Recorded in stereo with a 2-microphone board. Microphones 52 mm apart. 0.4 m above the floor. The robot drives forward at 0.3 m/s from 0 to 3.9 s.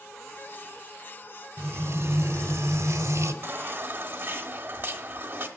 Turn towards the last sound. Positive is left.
turn(degrees=-35)  # may be behind; listen again after turning